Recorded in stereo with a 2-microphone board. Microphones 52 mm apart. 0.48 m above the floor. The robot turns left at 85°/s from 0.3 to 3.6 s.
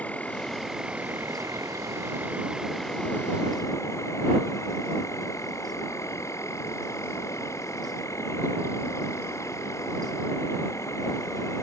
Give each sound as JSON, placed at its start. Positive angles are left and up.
{"t": 0.0, "sound": "an insect", "azimuth_deg": 30}